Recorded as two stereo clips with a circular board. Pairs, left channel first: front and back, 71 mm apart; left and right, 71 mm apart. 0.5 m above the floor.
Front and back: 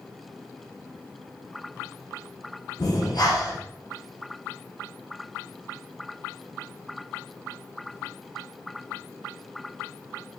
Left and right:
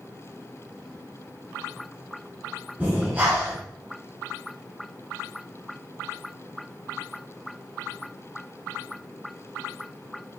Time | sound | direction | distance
2.8 | breathing | 20° right | 6 m